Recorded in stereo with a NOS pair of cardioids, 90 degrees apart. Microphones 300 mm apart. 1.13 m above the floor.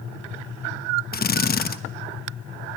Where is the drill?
30° left, 1.2 m.